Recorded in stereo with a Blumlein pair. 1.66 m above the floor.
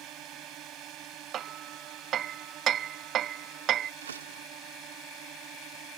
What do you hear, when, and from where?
0.0 s a drone: 35° right
1.3 s hammering: 30° right
4.0 s a door slam: 70° right